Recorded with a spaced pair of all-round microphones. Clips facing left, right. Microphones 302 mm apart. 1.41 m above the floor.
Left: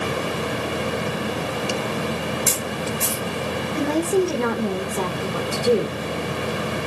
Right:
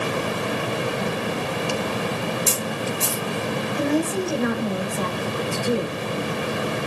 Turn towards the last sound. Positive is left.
turn(degrees=80)